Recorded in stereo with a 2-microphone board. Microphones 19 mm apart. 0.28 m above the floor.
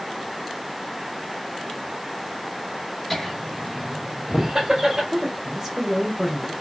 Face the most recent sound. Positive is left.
turn(degrees=-20)  # may be behind; listen again after turning